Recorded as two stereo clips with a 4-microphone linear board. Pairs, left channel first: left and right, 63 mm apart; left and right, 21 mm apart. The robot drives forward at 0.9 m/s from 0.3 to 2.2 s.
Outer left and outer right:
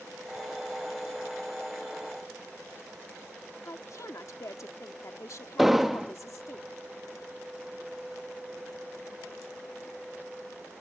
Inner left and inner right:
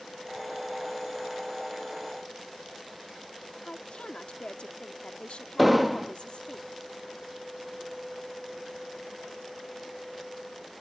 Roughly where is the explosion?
Centre.